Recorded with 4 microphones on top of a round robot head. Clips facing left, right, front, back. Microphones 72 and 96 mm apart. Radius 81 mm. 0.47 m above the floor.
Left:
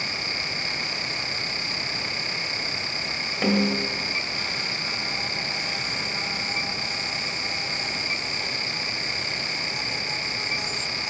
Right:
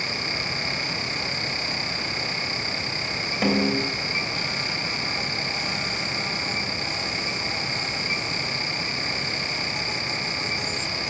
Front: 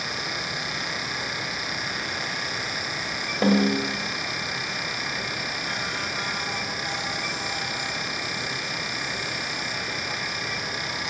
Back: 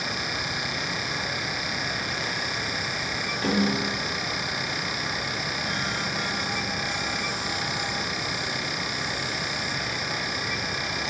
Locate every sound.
3.4 s a snare drum: 5° right, 2 m